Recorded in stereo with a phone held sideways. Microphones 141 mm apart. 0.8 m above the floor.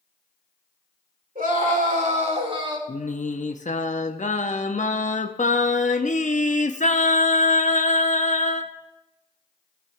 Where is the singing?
60° left (ahead or behind), 0.7 m.